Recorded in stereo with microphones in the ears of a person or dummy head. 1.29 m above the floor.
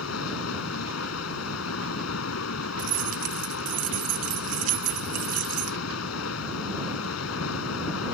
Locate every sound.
0.0 s running water: 85° left
2.8 s keys jangling: 45° right (ahead or behind)